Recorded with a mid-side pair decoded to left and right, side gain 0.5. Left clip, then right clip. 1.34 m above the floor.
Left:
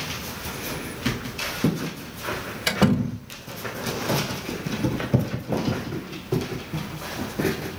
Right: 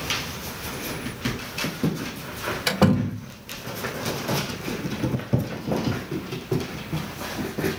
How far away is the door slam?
About 3.5 m.